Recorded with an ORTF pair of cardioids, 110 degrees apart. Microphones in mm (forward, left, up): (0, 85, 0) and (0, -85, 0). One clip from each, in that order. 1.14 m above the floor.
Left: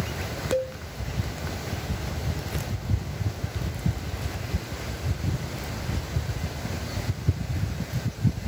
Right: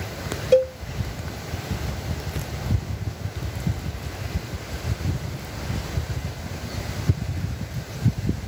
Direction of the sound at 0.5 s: 45° right.